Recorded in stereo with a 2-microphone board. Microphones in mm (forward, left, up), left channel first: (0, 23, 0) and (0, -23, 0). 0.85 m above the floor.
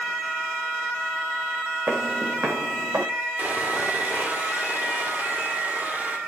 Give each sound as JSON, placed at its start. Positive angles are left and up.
{"t": 1.9, "sound": "footsteps", "side_deg": -50, "distance_m": 2.0}
{"t": 3.4, "sound": "sawing", "side_deg": -40, "distance_m": 2.5}